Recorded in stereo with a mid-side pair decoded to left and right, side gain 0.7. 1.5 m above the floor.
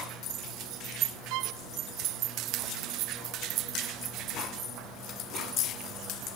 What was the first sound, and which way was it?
A violin, 65° right.